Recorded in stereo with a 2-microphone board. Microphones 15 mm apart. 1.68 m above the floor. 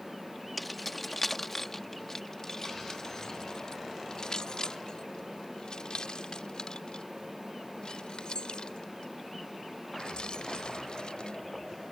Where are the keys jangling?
Centre (ahead or behind); by 11.4 s 80° left.